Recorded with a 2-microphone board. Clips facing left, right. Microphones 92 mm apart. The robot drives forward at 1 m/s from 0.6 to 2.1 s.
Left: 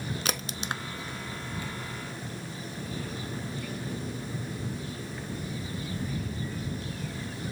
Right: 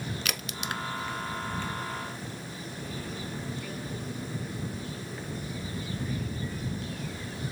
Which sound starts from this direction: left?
A crack, at 0.2 s.